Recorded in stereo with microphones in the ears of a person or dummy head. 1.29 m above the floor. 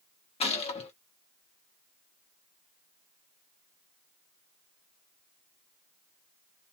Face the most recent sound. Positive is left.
turn(degrees=25)  # may be behind; listen again after turning